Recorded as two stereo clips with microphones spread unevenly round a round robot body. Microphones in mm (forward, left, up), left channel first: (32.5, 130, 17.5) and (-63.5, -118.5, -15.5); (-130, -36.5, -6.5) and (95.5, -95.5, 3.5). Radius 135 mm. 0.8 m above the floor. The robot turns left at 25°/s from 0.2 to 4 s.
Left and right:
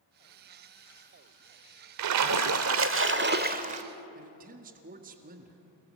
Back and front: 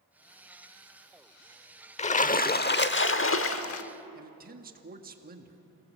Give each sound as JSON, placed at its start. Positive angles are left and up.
{"t": 2.0, "sound": "a splash", "azimuth_deg": -130, "distance_m": 0.8}
{"t": 4.2, "sound": "a man speaking", "azimuth_deg": -60, "distance_m": 1.8}